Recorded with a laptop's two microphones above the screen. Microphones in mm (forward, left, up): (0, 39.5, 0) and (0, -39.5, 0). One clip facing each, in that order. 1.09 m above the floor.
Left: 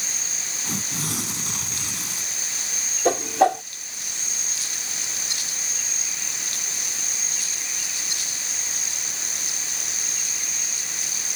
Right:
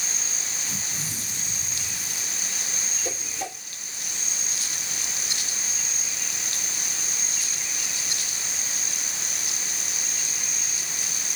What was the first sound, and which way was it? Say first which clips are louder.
Tearing paper: left 10 dB; 75° left (ahead or behind).